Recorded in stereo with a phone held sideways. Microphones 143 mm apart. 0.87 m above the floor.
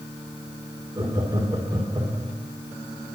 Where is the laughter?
25° right (ahead or behind), 2.5 m.